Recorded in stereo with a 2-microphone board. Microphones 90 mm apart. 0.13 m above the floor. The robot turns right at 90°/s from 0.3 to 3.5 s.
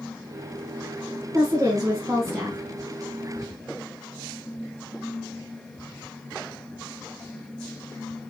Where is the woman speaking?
135° right, 1.4 m; by 2.6 s 20° right, 1.4 m.